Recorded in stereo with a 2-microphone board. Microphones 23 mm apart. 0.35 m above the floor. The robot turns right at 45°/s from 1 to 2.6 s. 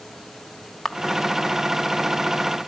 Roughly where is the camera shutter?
Centre.